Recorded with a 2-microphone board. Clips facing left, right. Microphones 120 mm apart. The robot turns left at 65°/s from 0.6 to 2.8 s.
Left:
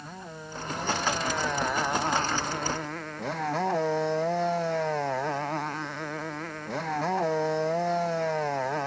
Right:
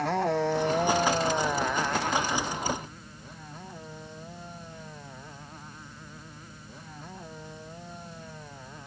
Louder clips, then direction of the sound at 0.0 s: Right 16 dB; 110° right.